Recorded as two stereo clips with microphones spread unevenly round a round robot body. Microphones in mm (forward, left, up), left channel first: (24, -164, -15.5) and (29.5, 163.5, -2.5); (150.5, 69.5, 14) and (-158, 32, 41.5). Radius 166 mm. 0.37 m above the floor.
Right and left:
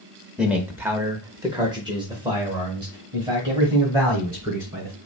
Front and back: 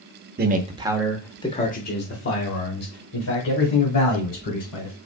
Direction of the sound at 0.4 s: Straight behind.